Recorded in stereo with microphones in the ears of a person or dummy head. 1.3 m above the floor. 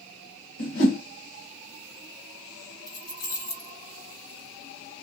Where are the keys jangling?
50° left (ahead or behind), 1.3 m.